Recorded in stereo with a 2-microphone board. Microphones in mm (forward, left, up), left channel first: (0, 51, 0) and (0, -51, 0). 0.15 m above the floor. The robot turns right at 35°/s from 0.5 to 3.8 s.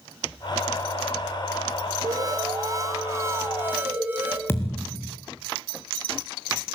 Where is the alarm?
95° right, 1.8 m; by 4.4 s 35° right, 1.8 m.